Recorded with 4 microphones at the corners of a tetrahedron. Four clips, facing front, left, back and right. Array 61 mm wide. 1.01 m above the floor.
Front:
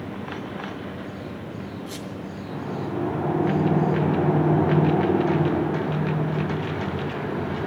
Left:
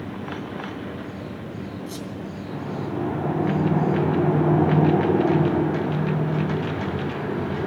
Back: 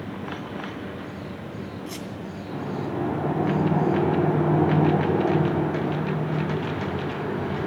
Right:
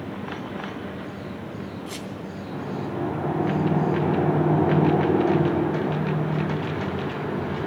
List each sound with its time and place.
1.9 s a squeak: 120° right, 2.5 m